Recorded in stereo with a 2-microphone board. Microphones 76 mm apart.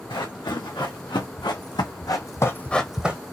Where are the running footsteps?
85° left, 3 m; by 3.2 s 20° right (ahead or behind), 0.9 m.